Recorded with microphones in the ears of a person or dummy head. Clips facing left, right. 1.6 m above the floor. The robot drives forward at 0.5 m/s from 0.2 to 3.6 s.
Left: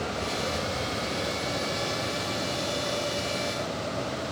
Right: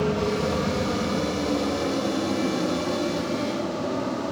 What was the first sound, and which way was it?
An aircraft, 65° right (ahead or behind).